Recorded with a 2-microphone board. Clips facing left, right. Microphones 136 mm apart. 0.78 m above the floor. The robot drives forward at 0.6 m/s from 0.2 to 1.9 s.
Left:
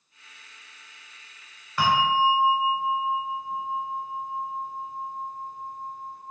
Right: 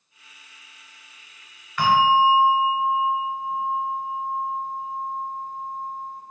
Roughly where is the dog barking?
I don't hear a dog barking.